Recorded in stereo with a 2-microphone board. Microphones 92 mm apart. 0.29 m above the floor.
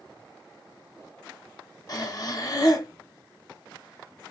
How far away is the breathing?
About 0.7 m.